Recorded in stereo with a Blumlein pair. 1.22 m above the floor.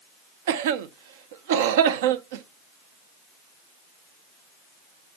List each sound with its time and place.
0.5 s a cough: 55° right, 0.7 m